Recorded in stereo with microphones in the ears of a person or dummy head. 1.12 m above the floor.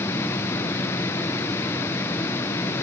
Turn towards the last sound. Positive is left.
No sound to turn to.